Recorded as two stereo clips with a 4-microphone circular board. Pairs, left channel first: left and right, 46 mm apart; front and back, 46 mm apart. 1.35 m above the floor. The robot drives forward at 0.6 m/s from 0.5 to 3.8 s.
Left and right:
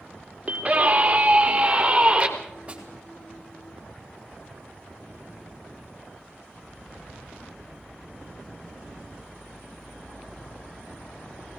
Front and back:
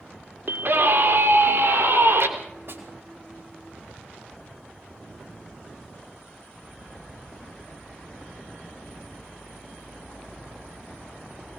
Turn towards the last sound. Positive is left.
turn(degrees=-155)